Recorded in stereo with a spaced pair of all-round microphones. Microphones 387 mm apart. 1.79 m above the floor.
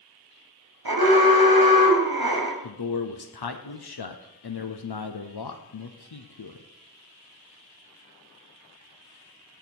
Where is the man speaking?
75° left (ahead or behind), 0.6 m.